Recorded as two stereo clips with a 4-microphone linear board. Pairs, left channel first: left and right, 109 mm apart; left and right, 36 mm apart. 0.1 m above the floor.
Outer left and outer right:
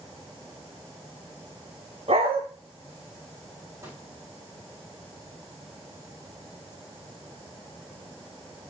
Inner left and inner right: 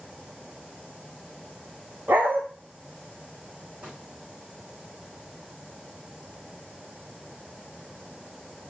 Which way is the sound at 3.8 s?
25° right (ahead or behind).